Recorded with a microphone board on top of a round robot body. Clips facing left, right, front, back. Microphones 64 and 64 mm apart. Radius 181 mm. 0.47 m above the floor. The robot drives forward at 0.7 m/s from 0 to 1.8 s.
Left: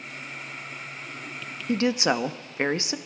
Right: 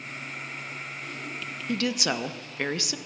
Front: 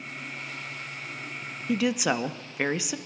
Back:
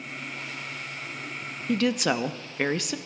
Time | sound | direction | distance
1.7 | a woman speaking | 65° left | 1.0 m